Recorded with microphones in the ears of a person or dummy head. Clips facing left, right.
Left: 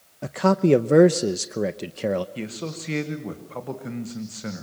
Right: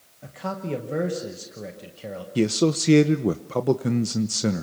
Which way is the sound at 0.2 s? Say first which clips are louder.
Left 12 dB; 65° left (ahead or behind).